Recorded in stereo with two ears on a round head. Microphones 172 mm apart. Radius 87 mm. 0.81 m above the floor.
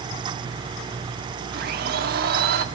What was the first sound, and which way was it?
A blender, 50° right (ahead or behind).